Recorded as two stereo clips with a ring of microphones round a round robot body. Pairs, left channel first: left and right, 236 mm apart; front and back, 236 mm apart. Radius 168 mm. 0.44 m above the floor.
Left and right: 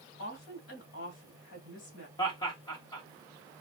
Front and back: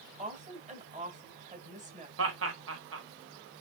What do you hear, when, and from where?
0.2 s a woman speaking: 120° left, 1.9 m
2.2 s laughter: 170° left, 2.0 m